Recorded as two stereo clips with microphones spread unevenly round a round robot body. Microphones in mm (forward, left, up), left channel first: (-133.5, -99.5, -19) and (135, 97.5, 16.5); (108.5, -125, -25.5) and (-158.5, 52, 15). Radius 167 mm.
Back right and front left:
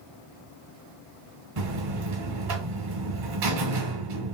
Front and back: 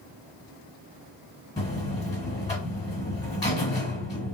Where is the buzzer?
45° left, 1.1 m.